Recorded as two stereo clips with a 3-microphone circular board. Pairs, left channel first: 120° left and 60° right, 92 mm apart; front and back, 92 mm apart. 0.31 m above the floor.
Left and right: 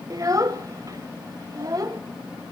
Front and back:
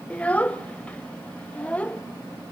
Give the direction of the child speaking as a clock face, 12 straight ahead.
2 o'clock.